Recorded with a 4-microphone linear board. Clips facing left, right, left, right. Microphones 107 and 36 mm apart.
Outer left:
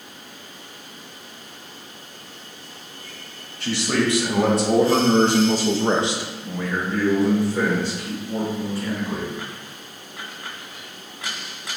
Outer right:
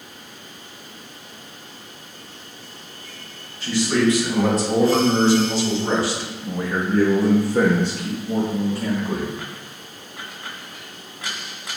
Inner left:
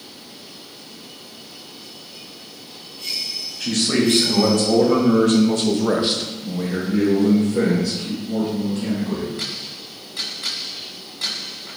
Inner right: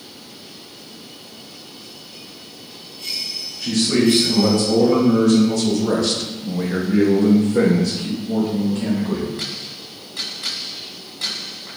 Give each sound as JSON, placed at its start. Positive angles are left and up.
{"t": 3.6, "sound": "a man speaking", "side_deg": 75, "distance_m": 1.7}